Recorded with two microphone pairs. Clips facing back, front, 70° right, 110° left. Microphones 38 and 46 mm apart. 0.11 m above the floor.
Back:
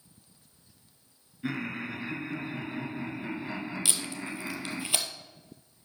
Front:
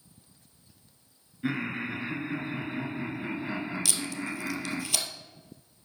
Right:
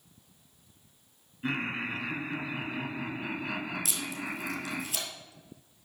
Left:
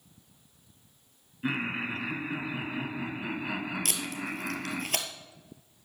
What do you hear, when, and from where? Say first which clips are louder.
1.4 s laughter: front 3 dB, left 1 dB; 45° left, 1.2 m
3.9 s tape being pulled: front 2 dB, left 1 dB; 115° left, 1.6 m